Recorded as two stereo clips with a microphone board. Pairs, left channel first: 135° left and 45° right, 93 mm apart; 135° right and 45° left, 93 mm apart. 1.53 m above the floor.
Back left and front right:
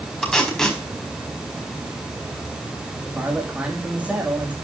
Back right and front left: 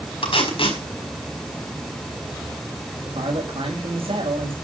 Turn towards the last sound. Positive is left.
turn(degrees=35)